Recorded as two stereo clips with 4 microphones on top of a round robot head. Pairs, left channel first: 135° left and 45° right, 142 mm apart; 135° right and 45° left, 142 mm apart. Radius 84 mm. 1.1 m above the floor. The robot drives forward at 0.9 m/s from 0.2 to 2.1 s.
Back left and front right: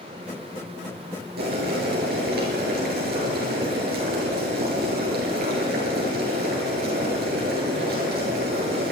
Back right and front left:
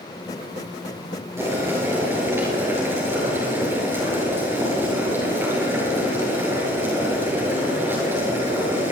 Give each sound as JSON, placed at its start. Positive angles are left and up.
{"t": 1.4, "sound": "boiling", "azimuth_deg": -30, "distance_m": 8.0}